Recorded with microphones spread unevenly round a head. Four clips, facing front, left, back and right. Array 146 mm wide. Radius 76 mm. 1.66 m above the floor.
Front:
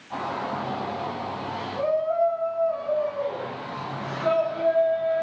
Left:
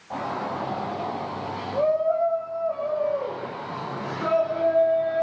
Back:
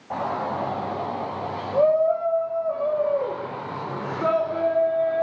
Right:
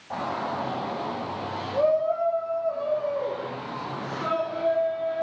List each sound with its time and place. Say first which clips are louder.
0.1 s a shout: even, back 3 dB; 175° right, 9 m; by 5.2 s 165° left, 5 m